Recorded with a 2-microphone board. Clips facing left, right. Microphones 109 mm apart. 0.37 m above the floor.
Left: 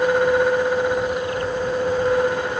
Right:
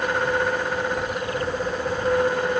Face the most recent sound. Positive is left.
No sound to turn to.